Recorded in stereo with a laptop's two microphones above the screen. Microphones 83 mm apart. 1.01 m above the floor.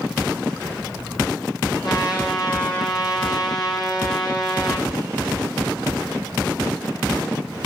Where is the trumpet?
60° left (ahead or behind), 7 m.